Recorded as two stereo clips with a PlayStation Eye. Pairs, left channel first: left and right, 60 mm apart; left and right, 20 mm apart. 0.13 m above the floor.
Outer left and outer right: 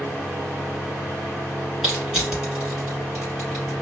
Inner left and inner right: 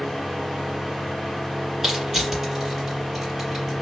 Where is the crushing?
10° right (ahead or behind), 1.9 m.